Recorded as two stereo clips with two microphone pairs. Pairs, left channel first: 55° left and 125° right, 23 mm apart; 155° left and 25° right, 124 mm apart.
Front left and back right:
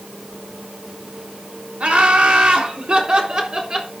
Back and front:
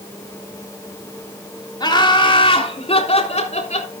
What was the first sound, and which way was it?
Laughter, 150° right.